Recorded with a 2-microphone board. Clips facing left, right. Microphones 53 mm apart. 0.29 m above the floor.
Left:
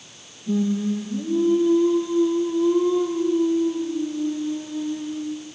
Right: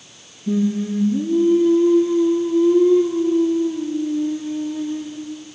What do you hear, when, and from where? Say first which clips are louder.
0.5 s singing: right 2 dB; 75° right (ahead or behind), 4 m